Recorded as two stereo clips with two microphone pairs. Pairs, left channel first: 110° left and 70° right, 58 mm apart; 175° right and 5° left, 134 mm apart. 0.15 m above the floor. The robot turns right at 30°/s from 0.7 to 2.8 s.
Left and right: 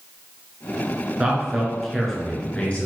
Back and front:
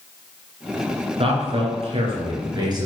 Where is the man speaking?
Straight ahead, 2.5 m; by 2.9 s 50° left, 2.5 m.